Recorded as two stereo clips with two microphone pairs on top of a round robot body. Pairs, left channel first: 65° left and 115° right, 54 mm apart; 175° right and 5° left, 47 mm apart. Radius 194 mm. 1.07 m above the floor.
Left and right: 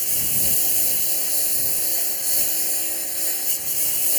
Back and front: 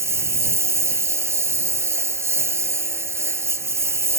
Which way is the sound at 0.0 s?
25° right.